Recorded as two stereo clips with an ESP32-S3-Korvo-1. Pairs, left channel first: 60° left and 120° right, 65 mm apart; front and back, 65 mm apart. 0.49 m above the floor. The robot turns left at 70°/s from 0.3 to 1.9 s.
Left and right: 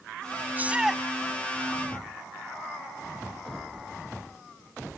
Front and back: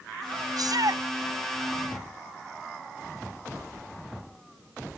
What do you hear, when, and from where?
0.6 s a shout: straight behind; by 1.0 s 145° left